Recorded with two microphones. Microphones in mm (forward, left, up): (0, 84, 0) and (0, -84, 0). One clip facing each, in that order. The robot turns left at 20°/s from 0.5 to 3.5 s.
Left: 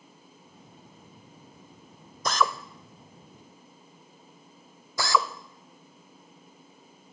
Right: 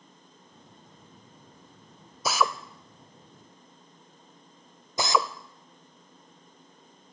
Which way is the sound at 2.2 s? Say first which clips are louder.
Even; 5° right (ahead or behind).